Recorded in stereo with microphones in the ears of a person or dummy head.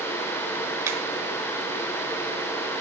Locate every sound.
0.9 s a finger snap: 15° right (ahead or behind), 0.9 m